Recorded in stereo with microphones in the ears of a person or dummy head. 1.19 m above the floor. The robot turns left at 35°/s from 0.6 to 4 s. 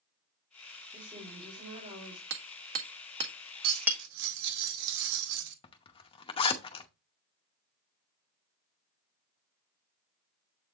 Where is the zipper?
35° left (ahead or behind), 0.9 m.